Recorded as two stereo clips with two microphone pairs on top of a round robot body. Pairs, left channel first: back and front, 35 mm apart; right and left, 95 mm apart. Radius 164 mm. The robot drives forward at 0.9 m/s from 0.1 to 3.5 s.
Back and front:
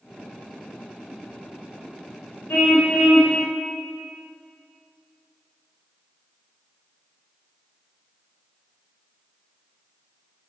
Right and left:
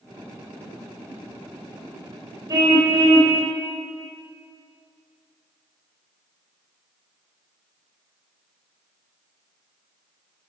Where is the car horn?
145° left, 2 m; by 3.4 s 155° left, 3 m.